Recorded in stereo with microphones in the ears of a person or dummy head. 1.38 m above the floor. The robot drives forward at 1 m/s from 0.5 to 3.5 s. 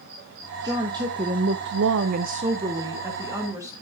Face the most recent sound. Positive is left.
turn(degrees=-15)  # may be behind; listen again after turning